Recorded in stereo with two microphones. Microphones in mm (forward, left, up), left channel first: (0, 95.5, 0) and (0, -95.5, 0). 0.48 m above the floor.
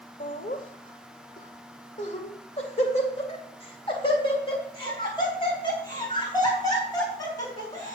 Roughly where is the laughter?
Left.